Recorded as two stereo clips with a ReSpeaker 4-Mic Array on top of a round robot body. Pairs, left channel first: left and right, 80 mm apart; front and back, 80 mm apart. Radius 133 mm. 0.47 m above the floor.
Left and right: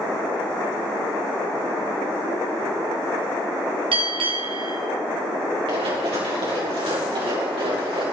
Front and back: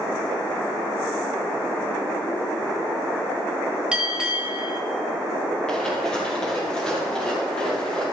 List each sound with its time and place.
3.9 s a bell: 100° right, 1.9 m
5.7 s running footsteps: 80° right, 4 m